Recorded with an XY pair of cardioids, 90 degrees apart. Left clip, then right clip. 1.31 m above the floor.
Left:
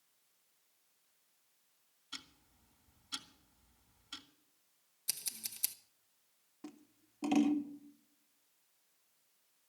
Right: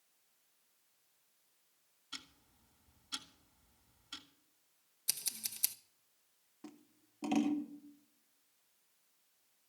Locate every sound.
2.1 s ticking: straight ahead, 1.8 m
5.1 s scissors: 20° right, 1.0 m
6.6 s scissors: 15° left, 1.0 m